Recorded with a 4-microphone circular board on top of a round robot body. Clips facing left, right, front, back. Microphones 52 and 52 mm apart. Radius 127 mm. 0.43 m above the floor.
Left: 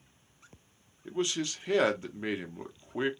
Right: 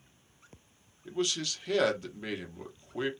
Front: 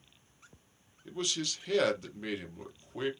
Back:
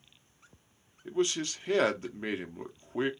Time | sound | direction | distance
1.1 | a man speaking | 140° left | 0.8 m